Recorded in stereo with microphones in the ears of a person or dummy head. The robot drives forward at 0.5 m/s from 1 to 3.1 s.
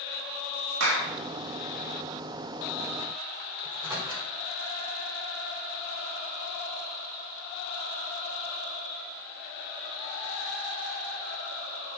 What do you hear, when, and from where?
0.8 s a clap: 85° right, 1.7 m
3.6 s a microwave: 30° right (ahead or behind), 4.5 m